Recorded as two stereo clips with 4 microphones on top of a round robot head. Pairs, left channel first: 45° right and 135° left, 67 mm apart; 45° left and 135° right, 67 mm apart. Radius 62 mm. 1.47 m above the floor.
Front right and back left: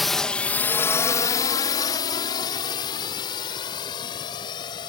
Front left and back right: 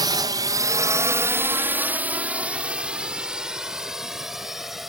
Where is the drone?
135° right; by 4.9 s 50° right.